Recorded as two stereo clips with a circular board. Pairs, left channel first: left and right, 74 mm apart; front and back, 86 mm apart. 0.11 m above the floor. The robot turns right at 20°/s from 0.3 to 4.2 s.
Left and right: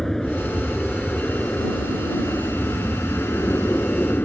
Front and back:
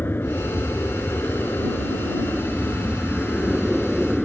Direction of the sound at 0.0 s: 15° left.